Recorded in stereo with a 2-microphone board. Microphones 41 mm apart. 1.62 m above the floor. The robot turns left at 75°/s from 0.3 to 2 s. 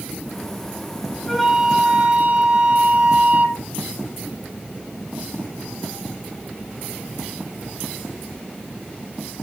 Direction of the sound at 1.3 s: 15° left.